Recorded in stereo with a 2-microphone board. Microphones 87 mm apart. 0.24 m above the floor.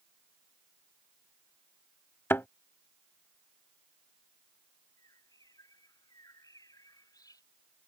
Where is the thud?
25° left (ahead or behind).